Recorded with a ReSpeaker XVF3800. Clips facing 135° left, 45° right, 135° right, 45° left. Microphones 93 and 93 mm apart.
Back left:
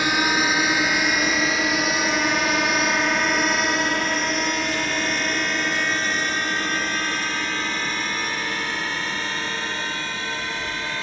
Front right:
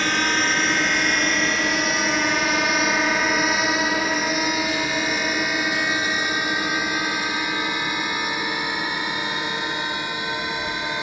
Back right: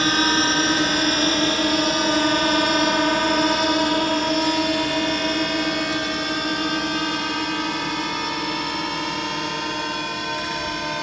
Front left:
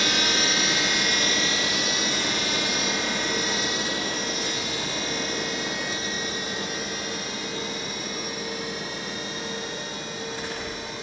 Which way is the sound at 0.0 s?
150° right.